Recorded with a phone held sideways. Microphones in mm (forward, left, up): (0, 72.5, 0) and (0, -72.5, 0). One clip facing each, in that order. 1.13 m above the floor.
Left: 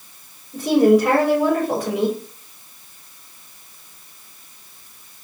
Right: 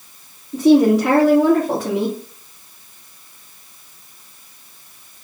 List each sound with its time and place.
0.5 s a woman speaking: 80° right, 3 m